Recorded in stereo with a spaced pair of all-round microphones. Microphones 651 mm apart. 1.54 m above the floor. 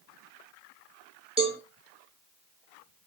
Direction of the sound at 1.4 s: 10° right (ahead or behind).